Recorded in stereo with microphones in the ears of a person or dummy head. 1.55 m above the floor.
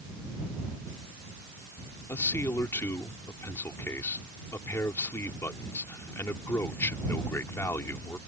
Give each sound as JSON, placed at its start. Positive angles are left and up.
{"t": 2.1, "sound": "a man speaking", "side_deg": 15}